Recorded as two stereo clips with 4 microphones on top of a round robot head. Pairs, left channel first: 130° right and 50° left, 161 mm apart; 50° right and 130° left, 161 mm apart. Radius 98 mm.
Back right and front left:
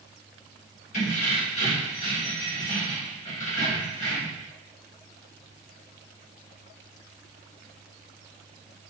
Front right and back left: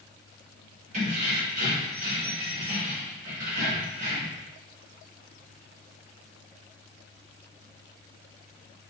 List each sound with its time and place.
0.9 s keys jangling: straight behind, 1.0 m